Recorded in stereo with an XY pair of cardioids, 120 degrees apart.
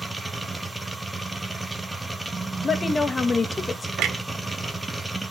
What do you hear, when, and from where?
0.0 s a machine running: 10° right, 1.1 m
2.6 s a woman speaking: 25° left, 1.3 m
4.0 s a clunk: 70° right, 1.0 m